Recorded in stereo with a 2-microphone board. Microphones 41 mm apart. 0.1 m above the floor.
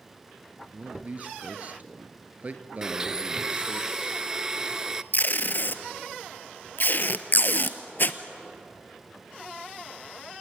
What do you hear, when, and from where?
0.7 s a man speaking: 40° right (ahead or behind), 1.8 m
2.8 s a blender: 15° right (ahead or behind), 0.6 m
5.1 s tape being pulled: 50° left (ahead or behind), 1.0 m